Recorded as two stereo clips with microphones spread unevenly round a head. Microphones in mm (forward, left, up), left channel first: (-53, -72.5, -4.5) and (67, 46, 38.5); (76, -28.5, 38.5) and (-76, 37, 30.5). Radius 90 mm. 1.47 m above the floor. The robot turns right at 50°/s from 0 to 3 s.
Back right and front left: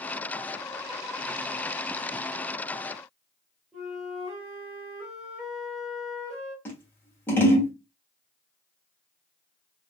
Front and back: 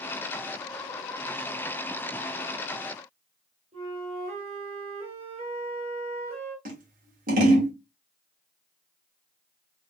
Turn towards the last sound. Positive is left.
turn(degrees=135)